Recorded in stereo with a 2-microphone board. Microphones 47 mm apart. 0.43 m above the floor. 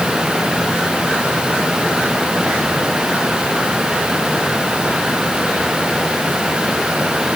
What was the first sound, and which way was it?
Only background noise.